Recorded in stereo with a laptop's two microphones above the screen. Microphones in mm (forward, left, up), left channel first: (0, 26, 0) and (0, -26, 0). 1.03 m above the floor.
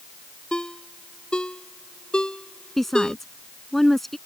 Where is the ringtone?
15° left (ahead or behind).